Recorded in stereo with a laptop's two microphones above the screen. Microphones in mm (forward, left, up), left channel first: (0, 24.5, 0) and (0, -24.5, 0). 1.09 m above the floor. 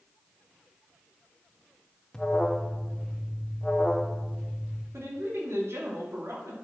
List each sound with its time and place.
2.1 s an alarm: 10° left (ahead or behind), 1.0 m
4.9 s a woman speaking: 60° right (ahead or behind), 2 m